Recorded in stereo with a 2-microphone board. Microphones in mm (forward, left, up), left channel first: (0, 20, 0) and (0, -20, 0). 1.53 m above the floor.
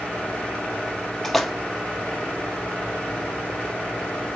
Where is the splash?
5° left (ahead or behind), 0.6 m.